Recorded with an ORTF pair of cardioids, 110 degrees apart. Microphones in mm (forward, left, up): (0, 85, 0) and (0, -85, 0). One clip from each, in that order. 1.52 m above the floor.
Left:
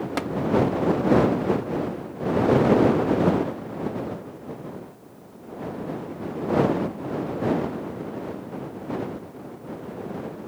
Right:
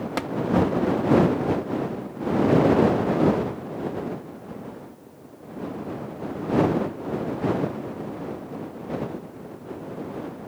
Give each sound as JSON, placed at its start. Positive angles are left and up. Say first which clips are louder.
{"t": 0.2, "sound": "tapping", "louder": "even", "azimuth_deg": 0}